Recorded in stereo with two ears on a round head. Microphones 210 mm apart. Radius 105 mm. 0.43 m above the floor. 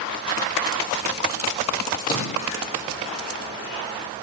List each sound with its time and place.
2.0 s a splash: 40° left (ahead or behind), 6 m